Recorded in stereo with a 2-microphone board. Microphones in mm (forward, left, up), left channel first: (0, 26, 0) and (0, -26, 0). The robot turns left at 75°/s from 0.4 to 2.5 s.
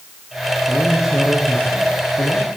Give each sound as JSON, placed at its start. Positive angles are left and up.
{"t": 0.7, "sound": "a man speaking", "azimuth_deg": -150, "distance_m": 8.0}